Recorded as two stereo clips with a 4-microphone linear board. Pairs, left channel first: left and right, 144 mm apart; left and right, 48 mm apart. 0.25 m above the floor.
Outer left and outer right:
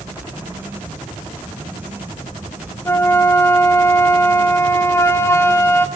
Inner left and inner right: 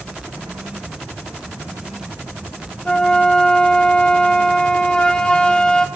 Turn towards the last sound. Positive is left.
turn(degrees=20)  # may be behind; listen again after turning